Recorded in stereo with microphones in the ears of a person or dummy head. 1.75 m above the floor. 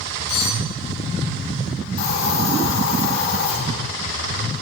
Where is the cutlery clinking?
60° left (ahead or behind), 4.5 m.